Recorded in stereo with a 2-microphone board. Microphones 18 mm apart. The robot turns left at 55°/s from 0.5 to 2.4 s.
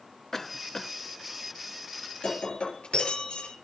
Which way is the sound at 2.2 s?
60° left (ahead or behind).